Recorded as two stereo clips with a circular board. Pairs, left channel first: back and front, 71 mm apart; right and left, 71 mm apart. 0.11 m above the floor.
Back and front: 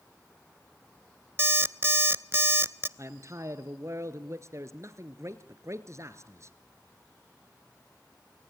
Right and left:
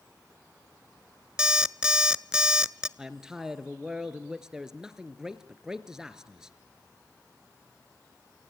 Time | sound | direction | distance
1.4 | an alarm clock | 20° left | 0.6 m
3.0 | a man speaking | 10° left | 1.9 m